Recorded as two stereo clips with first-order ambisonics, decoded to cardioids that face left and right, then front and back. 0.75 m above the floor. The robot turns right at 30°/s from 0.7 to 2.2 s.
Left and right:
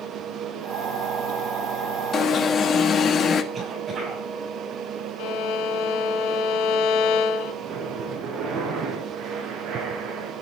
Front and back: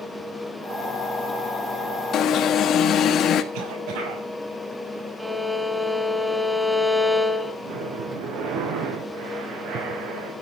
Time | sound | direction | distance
2.1 | an alarm | 40° left | 1.6 m
3.5 | a cough | 160° right | 5.5 m
5.2 | a violin | 100° left | 1.4 m
7.6 | breathing | 150° right | 7.5 m